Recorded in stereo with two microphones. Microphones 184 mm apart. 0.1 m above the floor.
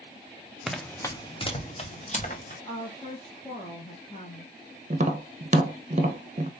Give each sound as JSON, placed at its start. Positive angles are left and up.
{"t": 0.7, "sound": "running footsteps", "side_deg": 0, "distance_m": 0.8}
{"t": 2.6, "sound": "a woman speaking", "side_deg": 35, "distance_m": 1.8}
{"t": 4.9, "sound": "tapping", "side_deg": -40, "distance_m": 0.7}